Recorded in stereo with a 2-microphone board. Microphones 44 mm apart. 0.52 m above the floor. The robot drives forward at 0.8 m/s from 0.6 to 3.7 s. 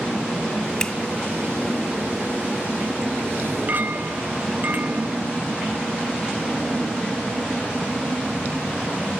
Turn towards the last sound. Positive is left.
turn(degrees=-45)  # may be behind; listen again after turning